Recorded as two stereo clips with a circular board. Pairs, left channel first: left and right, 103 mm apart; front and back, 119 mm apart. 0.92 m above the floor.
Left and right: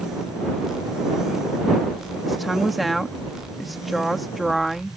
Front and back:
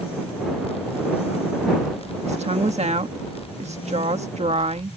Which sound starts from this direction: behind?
A woman speaking, at 2.2 s.